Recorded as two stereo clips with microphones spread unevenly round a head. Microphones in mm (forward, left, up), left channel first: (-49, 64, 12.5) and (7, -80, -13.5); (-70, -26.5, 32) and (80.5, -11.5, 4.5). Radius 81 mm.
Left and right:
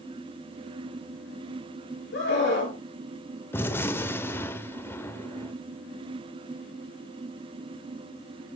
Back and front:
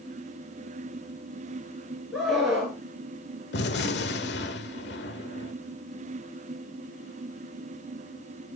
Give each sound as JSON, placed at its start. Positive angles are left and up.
{"t": 2.1, "sound": "a scream", "azimuth_deg": 95, "distance_m": 5.0}
{"t": 3.5, "sound": "a gunshot", "azimuth_deg": -175, "distance_m": 0.9}